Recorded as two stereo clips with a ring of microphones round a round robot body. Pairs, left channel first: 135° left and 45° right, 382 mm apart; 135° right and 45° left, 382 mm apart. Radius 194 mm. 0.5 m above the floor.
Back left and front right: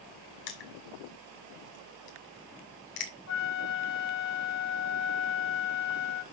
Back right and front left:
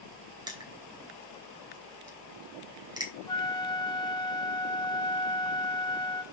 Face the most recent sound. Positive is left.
turn(degrees=150)